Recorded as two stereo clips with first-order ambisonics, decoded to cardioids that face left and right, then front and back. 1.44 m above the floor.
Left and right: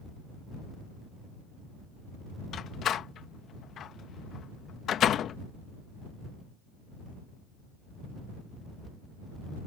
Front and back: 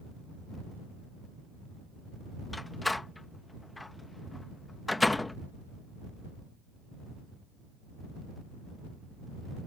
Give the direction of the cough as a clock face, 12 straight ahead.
I don't hear a cough.